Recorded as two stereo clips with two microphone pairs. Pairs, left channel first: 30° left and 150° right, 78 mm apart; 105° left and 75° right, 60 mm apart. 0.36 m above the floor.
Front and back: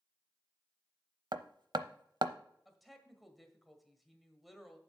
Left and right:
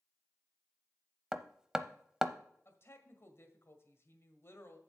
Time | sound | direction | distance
1.3 | hammering | 155° right | 0.6 m
2.6 | a woman speaking | 120° left | 1.7 m